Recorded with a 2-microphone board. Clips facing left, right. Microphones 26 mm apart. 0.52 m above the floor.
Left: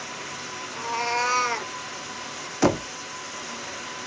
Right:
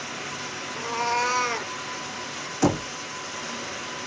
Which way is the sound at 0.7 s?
15° left (ahead or behind).